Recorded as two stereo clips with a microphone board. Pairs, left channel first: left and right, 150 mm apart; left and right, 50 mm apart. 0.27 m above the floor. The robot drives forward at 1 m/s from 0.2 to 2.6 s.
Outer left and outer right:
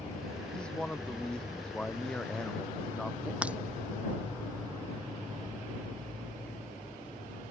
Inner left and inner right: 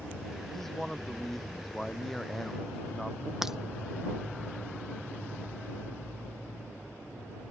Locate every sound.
0.5 s a man speaking: 5° left (ahead or behind)
3.4 s breaking glass: 10° right (ahead or behind)